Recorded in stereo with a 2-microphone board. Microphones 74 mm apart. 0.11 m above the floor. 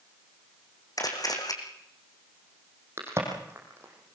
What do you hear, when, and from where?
1.0 s a camera shutter: 60° left (ahead or behind), 2.5 m
3.0 s a crack: 35° right (ahead or behind), 4.5 m